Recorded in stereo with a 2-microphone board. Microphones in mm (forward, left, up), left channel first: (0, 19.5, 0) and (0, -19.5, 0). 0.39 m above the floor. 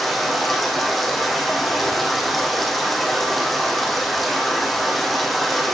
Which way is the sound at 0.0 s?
Centre (ahead or behind).